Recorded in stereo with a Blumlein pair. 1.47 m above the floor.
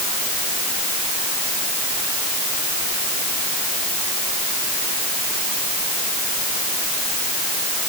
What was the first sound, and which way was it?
Only background noise.